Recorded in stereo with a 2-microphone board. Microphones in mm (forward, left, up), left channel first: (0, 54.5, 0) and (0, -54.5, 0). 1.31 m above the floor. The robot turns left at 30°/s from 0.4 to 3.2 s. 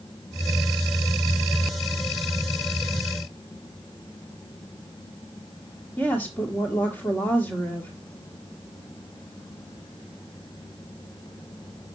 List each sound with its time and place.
6.0 s a woman speaking: 25° left (ahead or behind), 1.7 m